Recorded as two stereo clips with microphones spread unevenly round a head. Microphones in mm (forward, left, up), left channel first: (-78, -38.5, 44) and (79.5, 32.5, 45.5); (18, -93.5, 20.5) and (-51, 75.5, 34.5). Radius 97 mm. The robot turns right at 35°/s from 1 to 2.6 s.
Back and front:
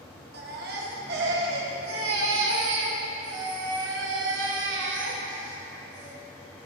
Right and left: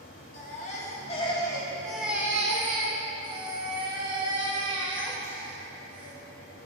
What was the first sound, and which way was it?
A baby crying, 10° right.